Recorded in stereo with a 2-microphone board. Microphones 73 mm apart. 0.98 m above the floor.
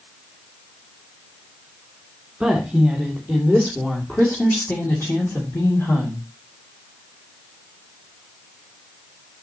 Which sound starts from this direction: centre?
A woman speaking, at 2.4 s.